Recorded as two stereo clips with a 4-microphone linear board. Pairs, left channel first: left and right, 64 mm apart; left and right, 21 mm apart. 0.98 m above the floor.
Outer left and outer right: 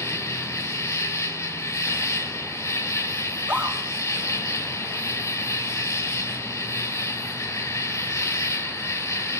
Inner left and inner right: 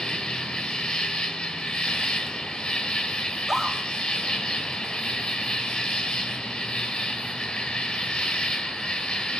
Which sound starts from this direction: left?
An insect, at 0.0 s.